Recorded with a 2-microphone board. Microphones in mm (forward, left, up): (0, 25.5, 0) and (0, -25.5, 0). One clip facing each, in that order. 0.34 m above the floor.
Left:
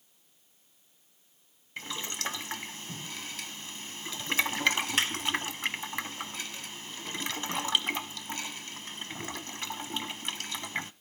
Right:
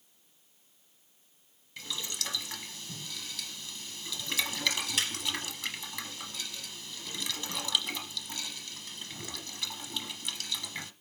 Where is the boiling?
35° left (ahead or behind), 1.0 m.